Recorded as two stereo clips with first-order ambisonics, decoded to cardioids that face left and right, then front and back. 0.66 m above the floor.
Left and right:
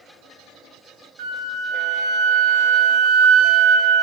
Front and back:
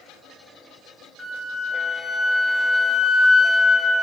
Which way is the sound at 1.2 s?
90° right.